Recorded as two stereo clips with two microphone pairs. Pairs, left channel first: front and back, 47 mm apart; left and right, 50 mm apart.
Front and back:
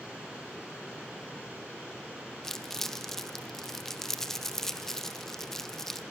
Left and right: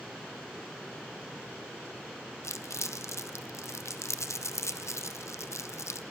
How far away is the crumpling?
About 0.9 m.